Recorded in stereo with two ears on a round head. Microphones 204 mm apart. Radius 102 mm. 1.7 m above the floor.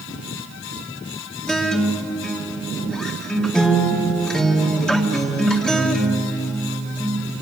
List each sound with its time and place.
1.5 s a guitar: 5° left (ahead or behind), 2.5 m